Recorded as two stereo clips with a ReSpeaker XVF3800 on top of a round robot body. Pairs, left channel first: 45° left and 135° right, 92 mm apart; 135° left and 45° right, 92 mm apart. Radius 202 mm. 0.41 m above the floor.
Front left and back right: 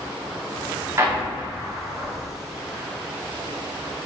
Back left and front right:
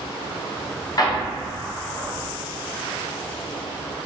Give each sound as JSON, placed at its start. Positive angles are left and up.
{"t": 1.0, "sound": "an explosion", "azimuth_deg": 170, "distance_m": 1.1}